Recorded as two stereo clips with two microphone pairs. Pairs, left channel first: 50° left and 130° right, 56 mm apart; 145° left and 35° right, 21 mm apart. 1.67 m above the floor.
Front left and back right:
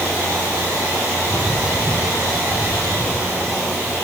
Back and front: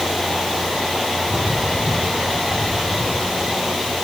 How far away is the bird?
About 4.5 m.